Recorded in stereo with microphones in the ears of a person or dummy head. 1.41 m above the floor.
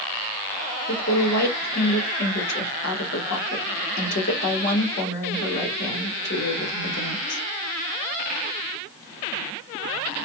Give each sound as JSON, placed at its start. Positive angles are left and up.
{"t": 0.9, "sound": "a woman speaking", "side_deg": 60, "distance_m": 1.9}